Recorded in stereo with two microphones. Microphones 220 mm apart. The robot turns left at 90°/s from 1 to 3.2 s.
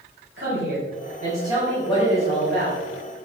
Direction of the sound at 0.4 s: 120° right.